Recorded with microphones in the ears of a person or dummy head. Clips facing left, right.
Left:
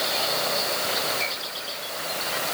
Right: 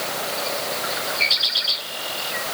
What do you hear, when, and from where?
Only background noise.